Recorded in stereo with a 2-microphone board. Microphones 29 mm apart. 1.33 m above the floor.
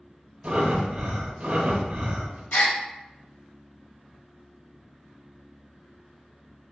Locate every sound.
0.4 s breathing: 45° right (ahead or behind), 0.7 m
2.5 s a gasp: 75° left (ahead or behind), 0.9 m